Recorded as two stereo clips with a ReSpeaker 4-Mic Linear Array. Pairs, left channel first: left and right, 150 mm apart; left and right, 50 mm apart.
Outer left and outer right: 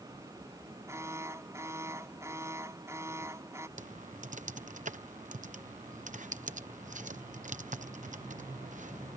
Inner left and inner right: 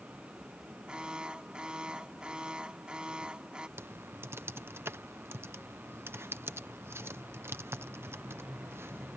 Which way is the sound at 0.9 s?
20° right (ahead or behind).